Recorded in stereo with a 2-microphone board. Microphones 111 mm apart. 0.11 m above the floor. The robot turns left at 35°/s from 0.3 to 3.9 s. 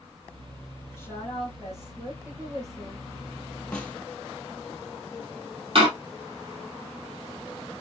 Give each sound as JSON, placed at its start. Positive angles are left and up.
{"t": 1.0, "sound": "a woman speaking", "azimuth_deg": 25, "distance_m": 2.5}
{"t": 3.7, "sound": "a snare drum", "side_deg": 10, "distance_m": 1.2}
{"t": 5.8, "sound": "a door slam", "side_deg": -55, "distance_m": 2.0}